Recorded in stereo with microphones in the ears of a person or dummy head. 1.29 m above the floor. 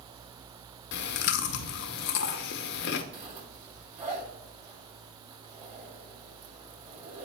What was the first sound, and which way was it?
Chewing, 65° left (ahead or behind).